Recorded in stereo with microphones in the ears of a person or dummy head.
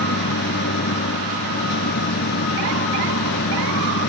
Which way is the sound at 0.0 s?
70° left (ahead or behind).